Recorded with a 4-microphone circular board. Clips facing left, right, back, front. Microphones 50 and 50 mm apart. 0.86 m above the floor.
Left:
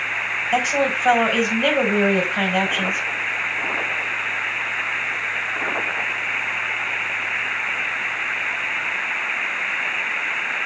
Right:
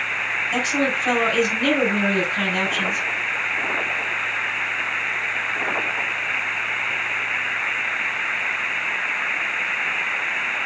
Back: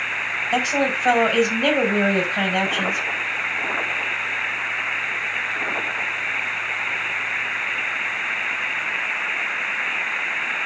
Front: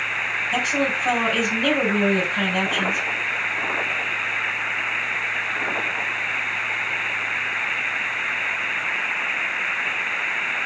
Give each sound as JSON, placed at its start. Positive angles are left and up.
{"t": 0.5, "sound": "a woman speaking", "azimuth_deg": 140, "distance_m": 4.0}